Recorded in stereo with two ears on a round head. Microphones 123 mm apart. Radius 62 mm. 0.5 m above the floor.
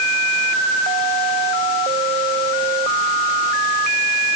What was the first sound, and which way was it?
Only background noise.